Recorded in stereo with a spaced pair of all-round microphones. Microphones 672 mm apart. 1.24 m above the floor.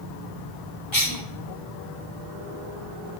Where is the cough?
40° left (ahead or behind), 4 m.